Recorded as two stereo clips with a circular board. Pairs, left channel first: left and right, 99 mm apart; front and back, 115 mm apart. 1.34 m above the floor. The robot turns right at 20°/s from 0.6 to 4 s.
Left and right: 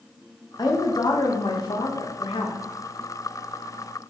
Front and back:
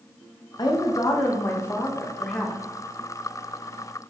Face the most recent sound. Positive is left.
turn(degrees=115)